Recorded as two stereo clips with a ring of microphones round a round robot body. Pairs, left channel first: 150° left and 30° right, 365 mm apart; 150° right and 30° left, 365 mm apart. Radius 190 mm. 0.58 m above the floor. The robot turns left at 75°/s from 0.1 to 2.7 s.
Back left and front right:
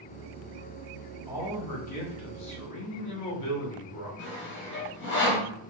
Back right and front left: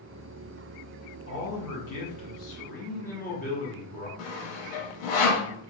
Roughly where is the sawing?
Behind right.